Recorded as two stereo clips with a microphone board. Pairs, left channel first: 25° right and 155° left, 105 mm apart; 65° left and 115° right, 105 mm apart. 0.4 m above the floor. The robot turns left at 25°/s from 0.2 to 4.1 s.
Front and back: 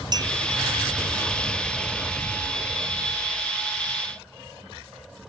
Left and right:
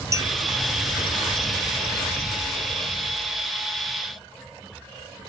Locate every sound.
0.1 s a clink: 160° right, 0.6 m; by 0.3 s 165° right, 0.6 m